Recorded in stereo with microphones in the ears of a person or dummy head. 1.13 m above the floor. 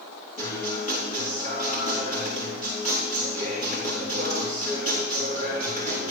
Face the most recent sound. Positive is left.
turn(degrees=40)  # may be behind; listen again after turning